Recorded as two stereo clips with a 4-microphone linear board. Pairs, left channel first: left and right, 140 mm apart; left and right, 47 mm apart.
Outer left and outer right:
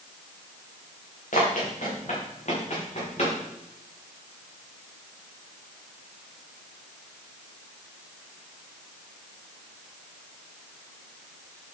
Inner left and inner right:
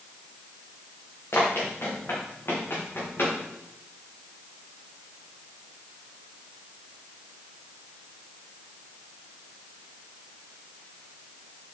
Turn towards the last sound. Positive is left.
turn(degrees=55)  # may be behind; listen again after turning